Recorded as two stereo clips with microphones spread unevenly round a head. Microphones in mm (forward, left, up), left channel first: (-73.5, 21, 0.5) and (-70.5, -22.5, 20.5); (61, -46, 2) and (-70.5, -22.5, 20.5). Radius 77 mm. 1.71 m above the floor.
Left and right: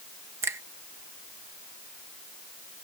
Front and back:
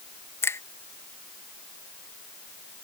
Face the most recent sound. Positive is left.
turn(degrees=-80)